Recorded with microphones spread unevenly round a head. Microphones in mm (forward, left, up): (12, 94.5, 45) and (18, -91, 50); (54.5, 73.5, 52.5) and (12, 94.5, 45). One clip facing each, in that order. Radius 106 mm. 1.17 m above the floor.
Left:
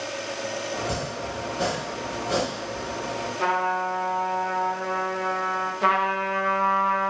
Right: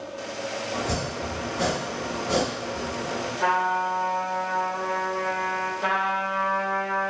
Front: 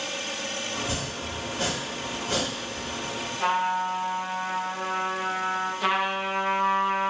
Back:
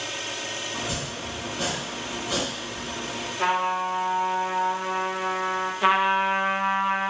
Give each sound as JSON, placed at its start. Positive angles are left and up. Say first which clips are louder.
{"t": 0.7, "sound": "chopping", "louder": "right 1 dB, even", "azimuth_deg": -25, "distance_m": 1.1}
{"t": 3.4, "sound": "a trumpet", "louder": "left 1 dB, back 1 dB", "azimuth_deg": 120, "distance_m": 0.8}
{"t": 5.8, "sound": "a trumpet", "louder": "left 5 dB, back 7 dB", "azimuth_deg": 90, "distance_m": 0.6}